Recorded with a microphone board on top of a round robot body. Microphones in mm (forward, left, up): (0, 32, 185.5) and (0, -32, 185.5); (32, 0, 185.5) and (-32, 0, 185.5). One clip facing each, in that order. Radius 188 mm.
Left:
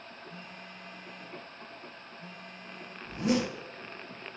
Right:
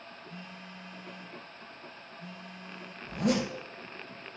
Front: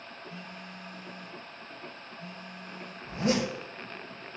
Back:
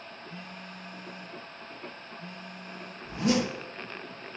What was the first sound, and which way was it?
A phone buzzing, 70° right.